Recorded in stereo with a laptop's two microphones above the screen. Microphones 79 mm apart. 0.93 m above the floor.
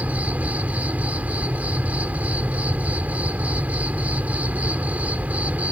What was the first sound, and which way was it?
An insect, 20° right (ahead or behind).